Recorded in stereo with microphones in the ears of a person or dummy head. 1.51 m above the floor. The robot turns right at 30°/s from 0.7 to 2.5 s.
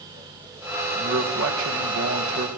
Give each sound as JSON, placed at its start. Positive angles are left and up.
{"t": 0.9, "sound": "a man speaking", "azimuth_deg": -110, "distance_m": 1.6}